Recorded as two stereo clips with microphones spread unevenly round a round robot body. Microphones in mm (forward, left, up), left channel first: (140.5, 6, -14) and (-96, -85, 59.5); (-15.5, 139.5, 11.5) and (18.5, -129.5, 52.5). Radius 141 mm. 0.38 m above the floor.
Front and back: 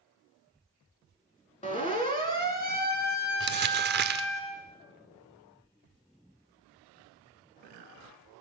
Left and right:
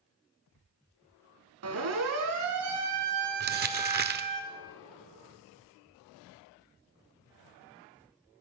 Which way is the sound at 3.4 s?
115° right.